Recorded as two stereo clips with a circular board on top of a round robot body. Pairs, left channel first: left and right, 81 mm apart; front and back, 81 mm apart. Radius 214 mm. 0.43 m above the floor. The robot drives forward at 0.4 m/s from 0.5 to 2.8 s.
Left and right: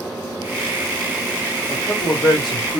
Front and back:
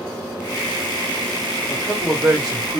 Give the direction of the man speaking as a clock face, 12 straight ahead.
8 o'clock.